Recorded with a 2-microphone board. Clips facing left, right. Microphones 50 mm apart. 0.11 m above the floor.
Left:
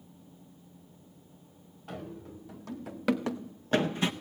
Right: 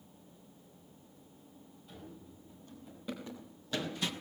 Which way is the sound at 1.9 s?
60° left (ahead or behind).